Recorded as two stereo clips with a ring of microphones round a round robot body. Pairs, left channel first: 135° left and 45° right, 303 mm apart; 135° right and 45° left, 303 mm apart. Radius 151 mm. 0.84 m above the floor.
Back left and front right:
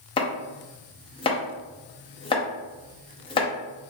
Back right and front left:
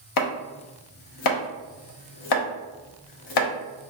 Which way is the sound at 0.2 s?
150° right.